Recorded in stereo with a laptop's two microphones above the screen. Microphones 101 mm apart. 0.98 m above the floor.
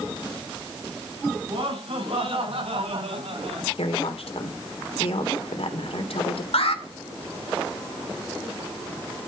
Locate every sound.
1.4 s laughter: 60° right (ahead or behind), 7.5 m; by 3.7 s 75° right (ahead or behind), 5.5 m
3.8 s a woman speaking: 75° left (ahead or behind), 3 m
6.5 s an alarm: 75° left (ahead or behind), 2.5 m